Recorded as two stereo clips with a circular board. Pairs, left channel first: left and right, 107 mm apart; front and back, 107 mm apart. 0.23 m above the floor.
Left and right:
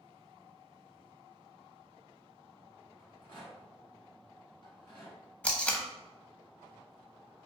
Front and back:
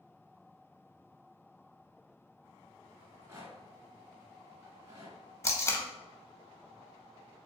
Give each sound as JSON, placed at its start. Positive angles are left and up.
{"t": 3.0, "sound": "a rattle", "azimuth_deg": 125, "distance_m": 1.7}
{"t": 5.4, "sound": "tape being pulled", "azimuth_deg": 25, "distance_m": 0.5}